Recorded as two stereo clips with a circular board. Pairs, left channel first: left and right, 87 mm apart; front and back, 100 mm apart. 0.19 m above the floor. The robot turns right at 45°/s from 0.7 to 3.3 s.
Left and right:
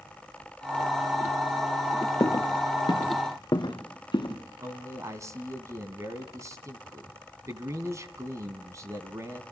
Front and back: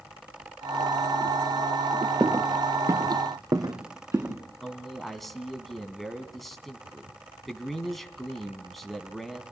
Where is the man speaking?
85° right, 1.5 m.